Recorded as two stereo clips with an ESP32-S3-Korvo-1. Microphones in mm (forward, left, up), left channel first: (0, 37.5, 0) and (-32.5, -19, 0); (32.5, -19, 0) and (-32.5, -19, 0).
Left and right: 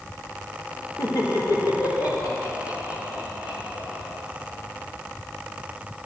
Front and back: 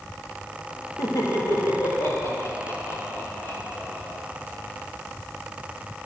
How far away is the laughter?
About 2.0 m.